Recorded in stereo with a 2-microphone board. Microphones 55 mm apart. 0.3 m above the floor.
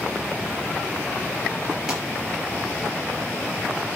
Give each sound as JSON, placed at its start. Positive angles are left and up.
{"t": 1.9, "sound": "a pop", "side_deg": -10, "distance_m": 4.5}